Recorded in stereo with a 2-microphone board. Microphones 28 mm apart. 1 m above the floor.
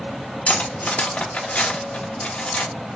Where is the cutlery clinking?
60° left (ahead or behind), 1.0 m.